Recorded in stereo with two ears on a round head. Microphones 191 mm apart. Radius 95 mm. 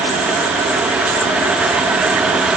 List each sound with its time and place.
Only background noise.